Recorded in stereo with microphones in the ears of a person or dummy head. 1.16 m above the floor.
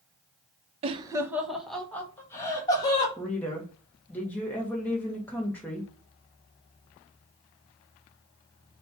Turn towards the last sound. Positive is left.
turn(degrees=5)  # may be behind; listen again after turning